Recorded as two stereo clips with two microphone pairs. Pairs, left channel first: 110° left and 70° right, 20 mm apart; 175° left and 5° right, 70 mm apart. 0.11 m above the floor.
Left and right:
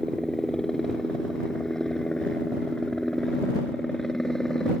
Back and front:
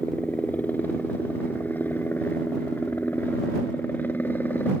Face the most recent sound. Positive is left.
turn(degrees=150)